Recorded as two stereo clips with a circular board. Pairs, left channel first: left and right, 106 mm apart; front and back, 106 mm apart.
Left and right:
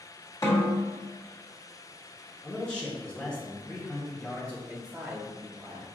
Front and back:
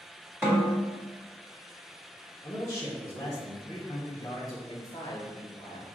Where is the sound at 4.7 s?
15° right, 1.2 m.